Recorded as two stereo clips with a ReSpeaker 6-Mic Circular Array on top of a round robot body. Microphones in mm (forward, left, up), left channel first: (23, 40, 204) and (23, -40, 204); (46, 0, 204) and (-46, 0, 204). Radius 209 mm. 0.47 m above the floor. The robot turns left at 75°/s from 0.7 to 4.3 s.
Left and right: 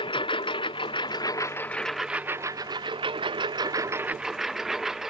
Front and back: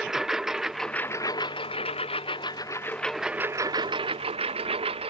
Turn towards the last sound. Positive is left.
turn(degrees=-175)